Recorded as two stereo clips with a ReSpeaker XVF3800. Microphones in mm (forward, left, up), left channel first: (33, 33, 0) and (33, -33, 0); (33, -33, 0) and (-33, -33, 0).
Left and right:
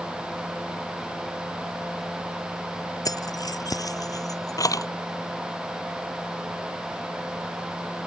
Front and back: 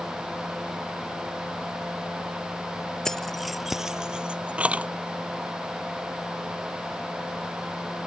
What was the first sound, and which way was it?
Keys jangling, 85° left.